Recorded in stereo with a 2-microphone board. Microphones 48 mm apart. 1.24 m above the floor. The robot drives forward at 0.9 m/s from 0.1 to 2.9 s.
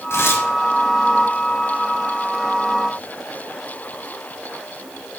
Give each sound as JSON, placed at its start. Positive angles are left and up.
{"t": 0.1, "sound": "tearing paper", "side_deg": 60, "distance_m": 3.0}